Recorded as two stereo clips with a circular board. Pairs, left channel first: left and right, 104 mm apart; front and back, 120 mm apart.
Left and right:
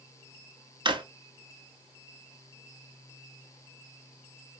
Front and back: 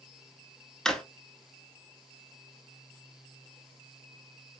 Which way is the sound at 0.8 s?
85° right.